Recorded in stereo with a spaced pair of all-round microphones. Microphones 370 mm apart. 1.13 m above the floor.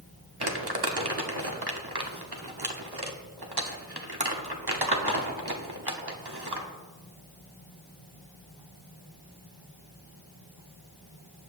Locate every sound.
0.4 s crumpling: 70° right (ahead or behind), 1.3 m